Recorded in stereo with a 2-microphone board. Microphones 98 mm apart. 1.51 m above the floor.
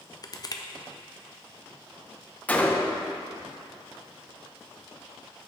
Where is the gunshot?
15° left (ahead or behind), 0.6 m.